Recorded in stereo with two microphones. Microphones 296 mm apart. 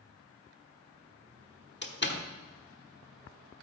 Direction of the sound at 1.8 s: 40° left (ahead or behind).